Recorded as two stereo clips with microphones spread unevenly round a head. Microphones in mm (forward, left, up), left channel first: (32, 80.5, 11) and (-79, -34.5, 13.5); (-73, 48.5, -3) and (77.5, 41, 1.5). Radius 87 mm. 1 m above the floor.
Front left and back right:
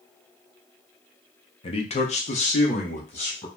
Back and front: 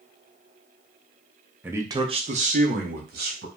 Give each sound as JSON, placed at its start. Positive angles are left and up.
{"t": 1.6, "sound": "a man speaking", "azimuth_deg": 75, "distance_m": 0.6}